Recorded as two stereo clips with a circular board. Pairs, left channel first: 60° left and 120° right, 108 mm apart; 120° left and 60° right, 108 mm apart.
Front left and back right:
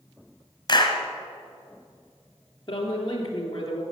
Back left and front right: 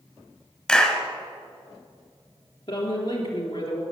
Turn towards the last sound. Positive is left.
turn(degrees=105)